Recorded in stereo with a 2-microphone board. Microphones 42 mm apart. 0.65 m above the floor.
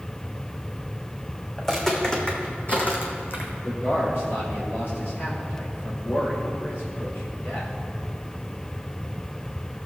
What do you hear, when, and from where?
1.6 s footsteps: 10° left (ahead or behind), 2.5 m; by 3.5 s 65° left (ahead or behind), 1.9 m
3.6 s a man speaking: 70° left (ahead or behind), 3 m